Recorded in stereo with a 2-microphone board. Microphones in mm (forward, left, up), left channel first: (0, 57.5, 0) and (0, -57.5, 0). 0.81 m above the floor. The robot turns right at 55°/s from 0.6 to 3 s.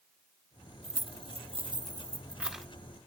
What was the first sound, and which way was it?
Keys jangling, 70° right (ahead or behind).